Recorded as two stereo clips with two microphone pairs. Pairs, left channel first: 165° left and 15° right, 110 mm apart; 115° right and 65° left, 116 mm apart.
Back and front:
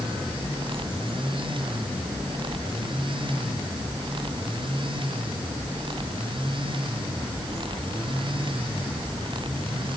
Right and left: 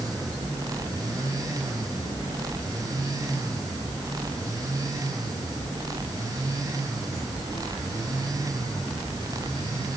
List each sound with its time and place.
Only background noise.